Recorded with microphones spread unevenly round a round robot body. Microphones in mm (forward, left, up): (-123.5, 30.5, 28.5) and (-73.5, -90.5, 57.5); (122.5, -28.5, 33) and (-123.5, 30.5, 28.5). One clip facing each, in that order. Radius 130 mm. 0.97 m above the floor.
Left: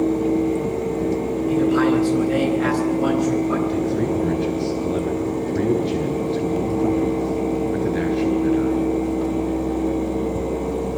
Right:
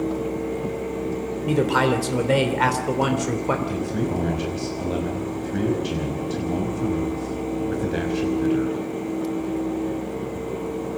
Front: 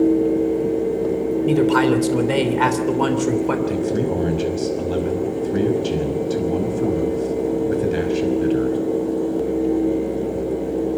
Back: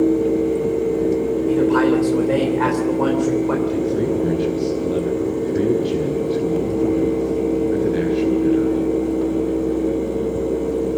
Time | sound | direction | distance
1.4 | a man speaking | 55° right | 3 m
3.7 | a man speaking | 35° right | 5.5 m